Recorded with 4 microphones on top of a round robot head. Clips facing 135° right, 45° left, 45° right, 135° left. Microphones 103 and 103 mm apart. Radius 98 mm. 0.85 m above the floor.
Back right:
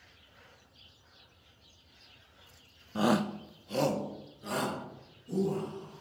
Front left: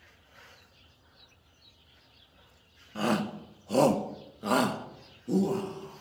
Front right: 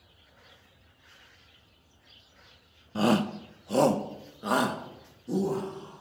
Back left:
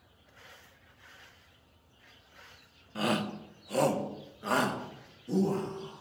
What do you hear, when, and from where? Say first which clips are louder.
3.0 s a shout: back right 1 dB, front right 6 dB; 80° right, 0.5 m; by 6.0 s 35° left, 1.9 m